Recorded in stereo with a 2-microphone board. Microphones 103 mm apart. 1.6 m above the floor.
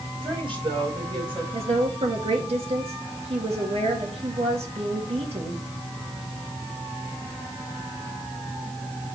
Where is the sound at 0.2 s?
50° right (ahead or behind), 5 m; by 1.4 s 60° right (ahead or behind), 5 m.